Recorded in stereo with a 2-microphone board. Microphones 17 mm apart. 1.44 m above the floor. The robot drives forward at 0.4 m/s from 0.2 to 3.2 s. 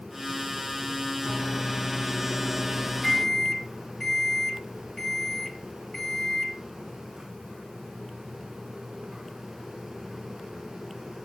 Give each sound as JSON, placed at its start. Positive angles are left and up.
{"t": 1.2, "sound": "a microwave", "side_deg": 15, "distance_m": 1.8}